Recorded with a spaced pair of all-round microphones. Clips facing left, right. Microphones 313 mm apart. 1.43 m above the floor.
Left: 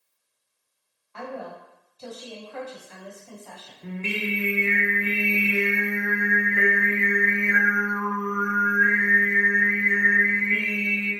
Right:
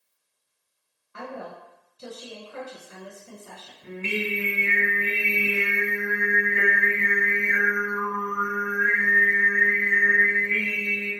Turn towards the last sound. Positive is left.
turn(degrees=65)  # may be behind; listen again after turning